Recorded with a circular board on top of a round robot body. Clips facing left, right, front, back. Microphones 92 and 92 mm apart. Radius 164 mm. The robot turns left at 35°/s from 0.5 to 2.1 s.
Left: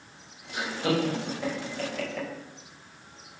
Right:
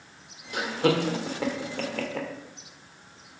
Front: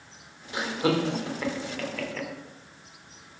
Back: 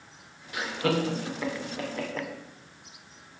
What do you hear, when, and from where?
0.5 s laughter: 65° right, 3 m; by 2.3 s 120° right, 3 m